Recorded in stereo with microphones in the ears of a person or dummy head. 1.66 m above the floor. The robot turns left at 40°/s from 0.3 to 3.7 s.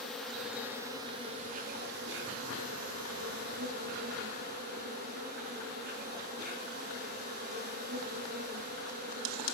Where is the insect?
5° left, 4.5 m; by 9.5 s 130° right, 4.5 m.